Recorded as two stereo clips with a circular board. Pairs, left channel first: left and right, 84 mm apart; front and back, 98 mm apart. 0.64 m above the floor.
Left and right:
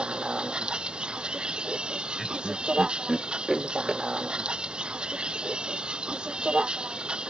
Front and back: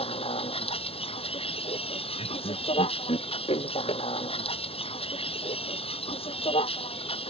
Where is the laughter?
5° right.